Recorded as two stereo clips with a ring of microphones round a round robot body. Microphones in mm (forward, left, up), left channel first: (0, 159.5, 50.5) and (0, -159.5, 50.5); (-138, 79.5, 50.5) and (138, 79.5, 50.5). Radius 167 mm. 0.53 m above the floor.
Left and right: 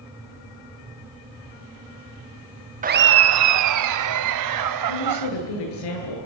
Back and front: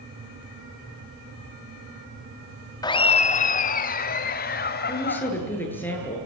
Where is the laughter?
120° right, 0.7 m.